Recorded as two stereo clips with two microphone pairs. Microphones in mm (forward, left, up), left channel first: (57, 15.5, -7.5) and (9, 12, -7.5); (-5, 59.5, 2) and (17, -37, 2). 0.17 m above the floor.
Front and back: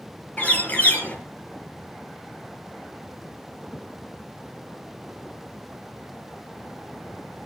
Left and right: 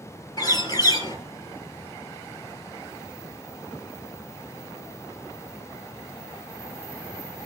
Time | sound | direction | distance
0.4 | a bird | 60° left | 4.5 m